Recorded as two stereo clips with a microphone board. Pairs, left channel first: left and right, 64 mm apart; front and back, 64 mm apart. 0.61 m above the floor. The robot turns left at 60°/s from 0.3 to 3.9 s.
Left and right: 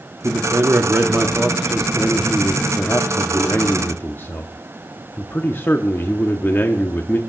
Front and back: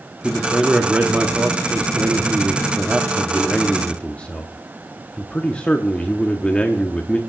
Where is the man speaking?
80° right, 0.8 m; by 7.2 s 60° left, 0.8 m.